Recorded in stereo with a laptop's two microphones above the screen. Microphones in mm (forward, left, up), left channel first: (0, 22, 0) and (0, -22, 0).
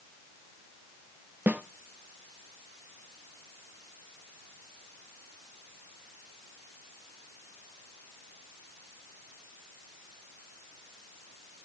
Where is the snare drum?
35° right (ahead or behind), 0.6 m.